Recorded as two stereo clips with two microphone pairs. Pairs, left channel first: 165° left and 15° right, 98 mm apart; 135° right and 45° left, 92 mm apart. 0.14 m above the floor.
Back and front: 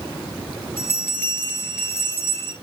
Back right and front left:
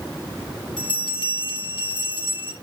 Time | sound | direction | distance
0.8 | a bell | 130° right | 3.5 m